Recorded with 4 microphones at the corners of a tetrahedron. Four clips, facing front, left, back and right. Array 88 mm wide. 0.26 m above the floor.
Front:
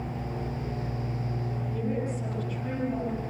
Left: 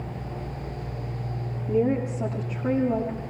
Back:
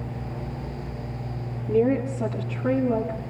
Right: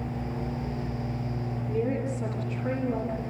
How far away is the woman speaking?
About 7.5 m.